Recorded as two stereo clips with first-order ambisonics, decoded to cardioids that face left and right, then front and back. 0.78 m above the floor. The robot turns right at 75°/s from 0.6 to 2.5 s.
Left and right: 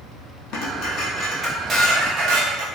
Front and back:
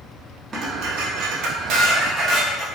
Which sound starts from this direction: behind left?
Dishes clattering, at 0.5 s.